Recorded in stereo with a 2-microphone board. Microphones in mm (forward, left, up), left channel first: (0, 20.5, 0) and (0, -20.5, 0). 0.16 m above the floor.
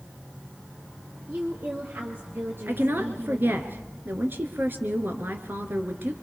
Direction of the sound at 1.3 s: 50° right (ahead or behind).